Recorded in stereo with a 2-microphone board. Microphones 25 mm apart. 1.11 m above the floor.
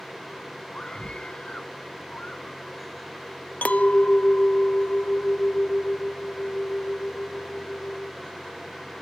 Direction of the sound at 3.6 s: 80° left.